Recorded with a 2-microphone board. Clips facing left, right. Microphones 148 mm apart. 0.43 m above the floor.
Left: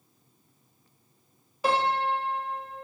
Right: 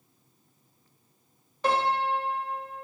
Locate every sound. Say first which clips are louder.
1.6 s a piano: even; 5° left (ahead or behind), 0.6 m